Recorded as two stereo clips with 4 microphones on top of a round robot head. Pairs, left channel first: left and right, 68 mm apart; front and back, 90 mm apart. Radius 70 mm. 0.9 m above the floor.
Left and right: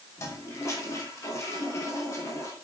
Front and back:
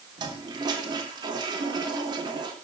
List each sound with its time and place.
0.2 s a toilet flushing: 140° left, 3 m